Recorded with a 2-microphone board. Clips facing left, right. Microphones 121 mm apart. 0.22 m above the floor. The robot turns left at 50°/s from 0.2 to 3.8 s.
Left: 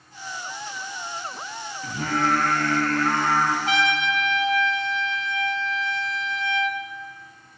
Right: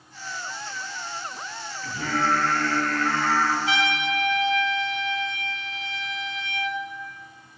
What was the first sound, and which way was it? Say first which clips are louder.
Singing: left 1 dB; 130° left.